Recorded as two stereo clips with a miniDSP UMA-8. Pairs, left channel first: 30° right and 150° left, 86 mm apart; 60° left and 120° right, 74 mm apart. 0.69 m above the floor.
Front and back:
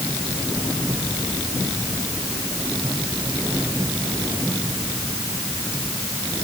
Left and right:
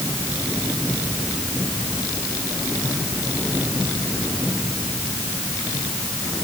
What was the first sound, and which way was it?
Only background noise.